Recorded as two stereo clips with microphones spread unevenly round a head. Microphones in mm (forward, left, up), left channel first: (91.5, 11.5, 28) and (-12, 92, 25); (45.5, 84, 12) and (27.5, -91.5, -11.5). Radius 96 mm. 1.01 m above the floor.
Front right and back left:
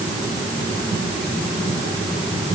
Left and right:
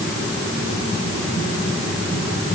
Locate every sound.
Only background noise.